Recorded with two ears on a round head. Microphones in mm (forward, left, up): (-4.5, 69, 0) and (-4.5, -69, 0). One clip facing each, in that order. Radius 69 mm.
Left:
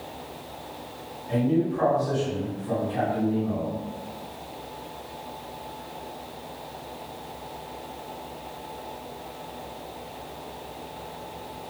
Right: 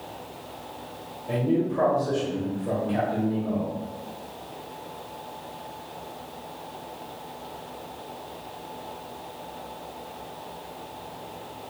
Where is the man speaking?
80° right, 1.5 m.